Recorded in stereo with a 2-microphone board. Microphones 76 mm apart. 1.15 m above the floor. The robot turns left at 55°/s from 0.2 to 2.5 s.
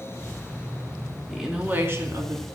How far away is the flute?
I don't hear a flute.